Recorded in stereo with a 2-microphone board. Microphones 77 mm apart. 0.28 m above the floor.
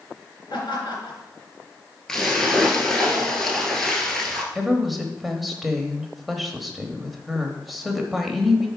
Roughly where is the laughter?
Left.